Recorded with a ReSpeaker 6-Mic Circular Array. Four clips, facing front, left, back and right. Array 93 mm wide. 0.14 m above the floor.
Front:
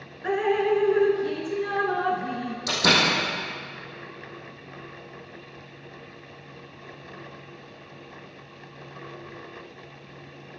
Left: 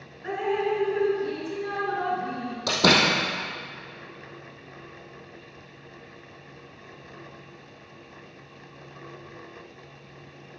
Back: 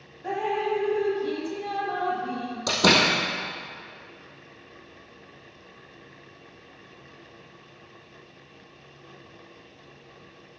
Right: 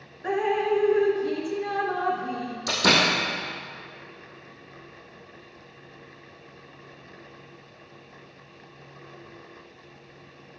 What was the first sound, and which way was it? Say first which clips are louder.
Dripping: right 2 dB, front 4 dB; 15° right.